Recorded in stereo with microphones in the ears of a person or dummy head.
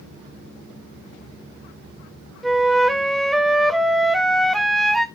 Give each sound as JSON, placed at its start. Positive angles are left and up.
{"t": 2.4, "sound": "a flute", "side_deg": 0, "distance_m": 0.5}